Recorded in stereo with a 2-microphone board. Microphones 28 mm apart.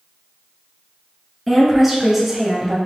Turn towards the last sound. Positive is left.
turn(degrees=-15)  # may be behind; listen again after turning